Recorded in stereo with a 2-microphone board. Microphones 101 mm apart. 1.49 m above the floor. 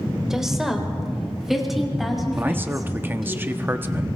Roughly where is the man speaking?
Right.